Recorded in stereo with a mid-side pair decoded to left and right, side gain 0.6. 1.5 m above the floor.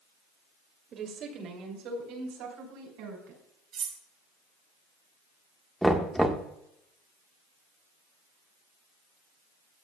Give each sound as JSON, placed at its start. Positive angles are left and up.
{"t": 0.9, "sound": "a woman speaking", "azimuth_deg": -50, "distance_m": 2.5}
{"t": 3.7, "sound": "cutlery clinking", "azimuth_deg": -50, "distance_m": 3.0}
{"t": 5.8, "sound": "knocking", "azimuth_deg": -5, "distance_m": 1.4}